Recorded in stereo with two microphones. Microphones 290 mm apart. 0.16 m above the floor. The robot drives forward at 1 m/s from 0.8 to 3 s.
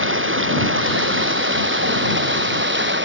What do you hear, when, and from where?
0.0 s running water: 40° right (ahead or behind)